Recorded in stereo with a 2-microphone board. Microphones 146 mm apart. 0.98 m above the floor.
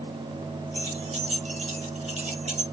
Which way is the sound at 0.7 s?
50° right (ahead or behind).